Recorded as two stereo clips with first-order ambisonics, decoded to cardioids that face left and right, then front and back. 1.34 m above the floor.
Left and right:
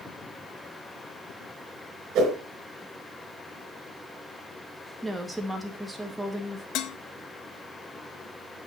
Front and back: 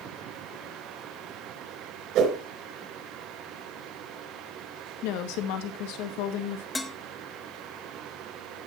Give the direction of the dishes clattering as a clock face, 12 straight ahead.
9 o'clock.